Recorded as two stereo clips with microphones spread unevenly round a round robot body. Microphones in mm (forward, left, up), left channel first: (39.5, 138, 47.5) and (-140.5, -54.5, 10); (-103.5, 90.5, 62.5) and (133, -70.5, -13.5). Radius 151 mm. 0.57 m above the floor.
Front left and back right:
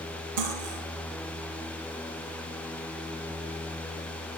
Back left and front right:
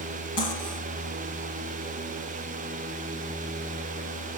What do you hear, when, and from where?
0.4 s cutlery clinking: 140° right, 6.5 m